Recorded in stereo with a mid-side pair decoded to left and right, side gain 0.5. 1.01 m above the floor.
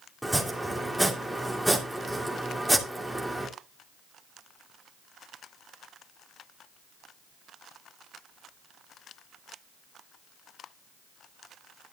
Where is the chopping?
5° right, 2.5 m.